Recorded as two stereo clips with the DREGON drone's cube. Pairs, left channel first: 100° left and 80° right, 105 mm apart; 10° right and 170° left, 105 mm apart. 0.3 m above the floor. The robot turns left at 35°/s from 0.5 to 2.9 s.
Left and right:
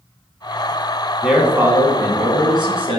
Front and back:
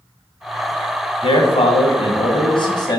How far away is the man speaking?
About 1.9 m.